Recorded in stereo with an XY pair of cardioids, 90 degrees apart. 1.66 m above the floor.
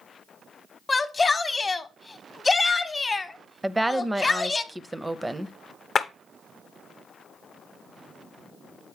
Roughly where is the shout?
Ahead left.